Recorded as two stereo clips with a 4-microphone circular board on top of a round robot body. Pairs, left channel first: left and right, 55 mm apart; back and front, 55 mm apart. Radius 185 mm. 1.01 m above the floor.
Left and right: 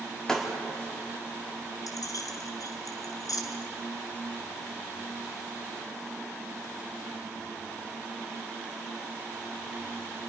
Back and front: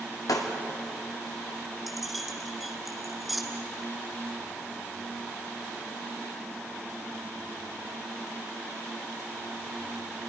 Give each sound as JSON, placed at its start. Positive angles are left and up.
{"t": 0.3, "sound": "breaking glass", "azimuth_deg": 170, "distance_m": 1.9}
{"t": 1.9, "sound": "keys jangling", "azimuth_deg": 90, "distance_m": 1.3}